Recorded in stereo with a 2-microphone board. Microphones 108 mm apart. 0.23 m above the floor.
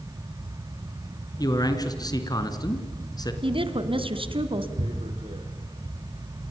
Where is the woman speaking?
55° right (ahead or behind), 2 m.